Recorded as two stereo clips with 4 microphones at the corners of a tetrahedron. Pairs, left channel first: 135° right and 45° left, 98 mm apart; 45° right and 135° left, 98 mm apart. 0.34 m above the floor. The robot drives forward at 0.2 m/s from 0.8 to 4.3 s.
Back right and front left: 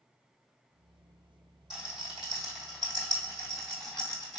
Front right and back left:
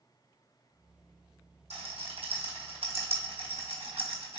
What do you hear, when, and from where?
1.7 s a rattle: 135° left, 2.0 m; by 4.4 s 140° left, 2.5 m